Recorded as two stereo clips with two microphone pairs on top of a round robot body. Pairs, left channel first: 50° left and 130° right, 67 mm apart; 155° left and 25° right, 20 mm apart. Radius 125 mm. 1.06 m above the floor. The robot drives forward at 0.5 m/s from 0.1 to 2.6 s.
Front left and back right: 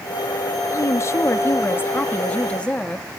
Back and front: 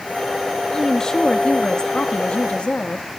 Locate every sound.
0.7 s a woman speaking: 85° left, 1.5 m; by 3.2 s 120° left, 1.7 m